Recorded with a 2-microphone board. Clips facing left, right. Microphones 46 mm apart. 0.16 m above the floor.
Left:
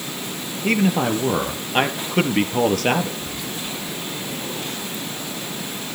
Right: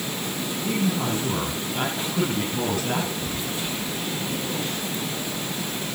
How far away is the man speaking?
About 3 m.